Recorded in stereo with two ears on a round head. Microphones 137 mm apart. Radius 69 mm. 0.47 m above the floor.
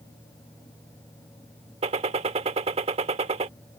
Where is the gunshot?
40° right (ahead or behind).